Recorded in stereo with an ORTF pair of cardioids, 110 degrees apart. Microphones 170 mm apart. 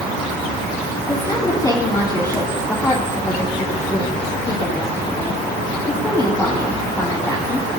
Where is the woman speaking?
20° left, 2.5 m.